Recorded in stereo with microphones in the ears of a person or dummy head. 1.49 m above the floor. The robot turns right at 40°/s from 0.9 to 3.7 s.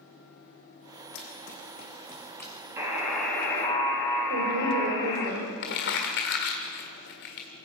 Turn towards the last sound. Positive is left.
turn(degrees=45)  # may be behind; listen again after turning